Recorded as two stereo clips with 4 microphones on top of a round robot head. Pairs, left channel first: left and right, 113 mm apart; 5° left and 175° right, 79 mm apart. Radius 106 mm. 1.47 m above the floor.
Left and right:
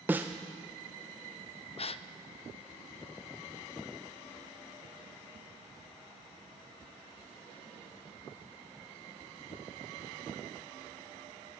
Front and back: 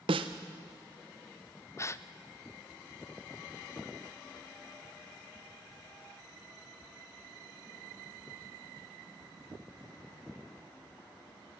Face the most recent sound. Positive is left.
turn(degrees=55)